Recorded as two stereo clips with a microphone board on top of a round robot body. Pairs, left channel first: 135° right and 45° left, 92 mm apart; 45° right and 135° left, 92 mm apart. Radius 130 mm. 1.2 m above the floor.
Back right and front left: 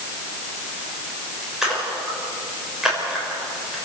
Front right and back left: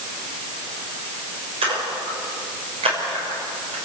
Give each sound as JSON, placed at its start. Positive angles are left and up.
{"t": 1.6, "sound": "a splash", "azimuth_deg": 130, "distance_m": 6.0}